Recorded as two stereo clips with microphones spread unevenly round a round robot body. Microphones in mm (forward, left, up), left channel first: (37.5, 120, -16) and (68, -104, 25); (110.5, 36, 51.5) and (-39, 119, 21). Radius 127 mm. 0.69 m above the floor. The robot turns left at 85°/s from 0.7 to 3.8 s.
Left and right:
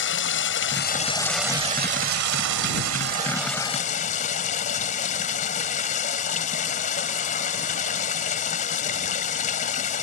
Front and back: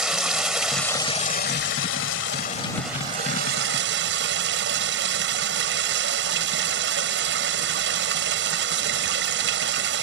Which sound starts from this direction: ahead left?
Running water, at 0.0 s.